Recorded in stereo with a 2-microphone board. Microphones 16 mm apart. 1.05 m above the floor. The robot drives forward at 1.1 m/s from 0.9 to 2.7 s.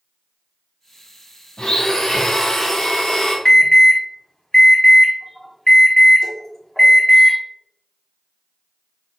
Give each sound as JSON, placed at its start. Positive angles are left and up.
{"t": 1.6, "sound": "a blender", "side_deg": 80, "distance_m": 2.0}
{"t": 3.5, "sound": "an alarm", "side_deg": 45, "distance_m": 1.4}